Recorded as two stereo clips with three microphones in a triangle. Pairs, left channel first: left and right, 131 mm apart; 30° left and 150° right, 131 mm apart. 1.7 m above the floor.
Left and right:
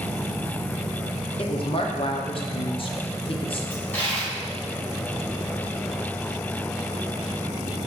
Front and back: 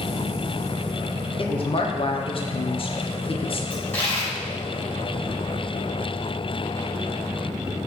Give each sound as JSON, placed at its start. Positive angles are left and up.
{"t": 1.4, "sound": "a woman speaking", "azimuth_deg": 60, "distance_m": 0.5}
{"t": 3.7, "sound": "a dropped coin", "azimuth_deg": 65, "distance_m": 1.5}